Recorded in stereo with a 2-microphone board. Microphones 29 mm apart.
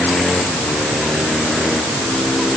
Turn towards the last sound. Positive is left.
No sound to turn to.